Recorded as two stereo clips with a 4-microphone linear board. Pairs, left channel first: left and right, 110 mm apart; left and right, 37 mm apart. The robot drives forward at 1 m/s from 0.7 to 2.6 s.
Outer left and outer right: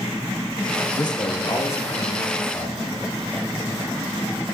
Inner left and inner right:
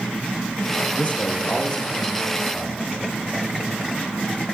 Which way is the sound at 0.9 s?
45° left (ahead or behind).